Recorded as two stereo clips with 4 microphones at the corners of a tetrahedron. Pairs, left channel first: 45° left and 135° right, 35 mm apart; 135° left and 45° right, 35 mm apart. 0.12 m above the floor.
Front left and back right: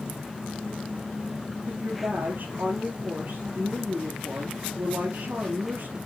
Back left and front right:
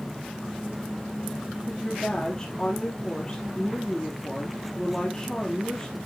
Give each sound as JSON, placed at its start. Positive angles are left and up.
{"t": 1.7, "sound": "a woman speaking", "azimuth_deg": -155, "distance_m": 3.0}